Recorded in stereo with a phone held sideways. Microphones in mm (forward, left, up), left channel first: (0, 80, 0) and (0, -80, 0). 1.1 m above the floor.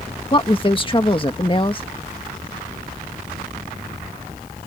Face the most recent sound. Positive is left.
turn(degrees=30)  # may be behind; listen again after turning